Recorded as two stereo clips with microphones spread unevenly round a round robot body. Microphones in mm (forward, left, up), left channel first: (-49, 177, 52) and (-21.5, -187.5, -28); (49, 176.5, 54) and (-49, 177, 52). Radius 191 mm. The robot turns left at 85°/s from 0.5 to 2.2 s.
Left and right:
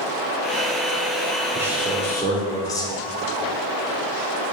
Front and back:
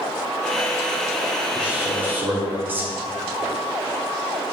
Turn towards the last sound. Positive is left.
turn(degrees=-170)